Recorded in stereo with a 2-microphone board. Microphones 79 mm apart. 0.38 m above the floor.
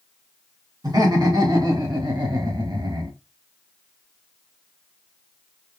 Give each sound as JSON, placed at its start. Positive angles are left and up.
{"t": 0.8, "sound": "laughter", "side_deg": -60, "distance_m": 3.5}